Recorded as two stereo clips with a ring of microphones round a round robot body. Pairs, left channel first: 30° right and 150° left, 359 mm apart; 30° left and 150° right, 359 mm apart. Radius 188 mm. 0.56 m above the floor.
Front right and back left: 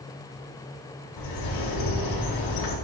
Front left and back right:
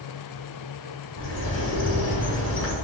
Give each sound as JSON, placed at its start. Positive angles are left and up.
{"t": 1.2, "sound": "a bird", "azimuth_deg": -15, "distance_m": 5.5}